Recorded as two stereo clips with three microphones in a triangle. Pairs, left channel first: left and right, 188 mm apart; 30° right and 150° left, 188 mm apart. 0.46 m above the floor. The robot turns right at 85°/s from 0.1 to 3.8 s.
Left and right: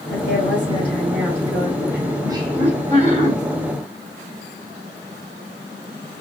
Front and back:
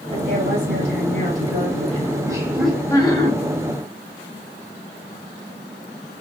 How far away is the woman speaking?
About 2.5 m.